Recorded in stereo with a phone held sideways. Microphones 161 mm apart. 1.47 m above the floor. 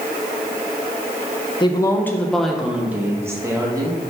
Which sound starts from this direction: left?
A woman speaking, at 1.6 s.